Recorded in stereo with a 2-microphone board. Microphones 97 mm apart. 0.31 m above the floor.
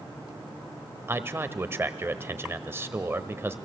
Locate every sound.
1.1 s a man speaking: 25° right (ahead or behind), 1.2 m